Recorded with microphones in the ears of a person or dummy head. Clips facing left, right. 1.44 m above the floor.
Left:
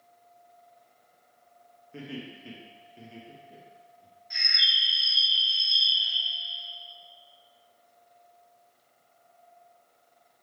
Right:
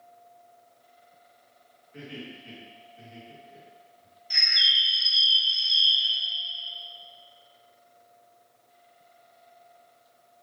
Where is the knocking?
I don't hear knocking.